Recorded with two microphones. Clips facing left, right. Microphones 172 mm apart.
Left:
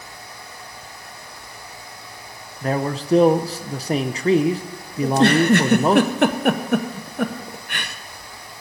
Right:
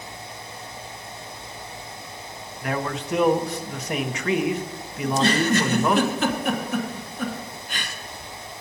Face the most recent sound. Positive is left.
turn(degrees=60)  # may be behind; listen again after turning